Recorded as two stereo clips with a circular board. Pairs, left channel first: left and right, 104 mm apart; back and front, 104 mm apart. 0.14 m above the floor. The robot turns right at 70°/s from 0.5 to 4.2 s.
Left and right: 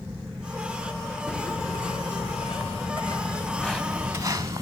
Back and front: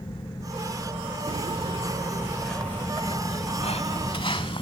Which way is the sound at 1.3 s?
5° left.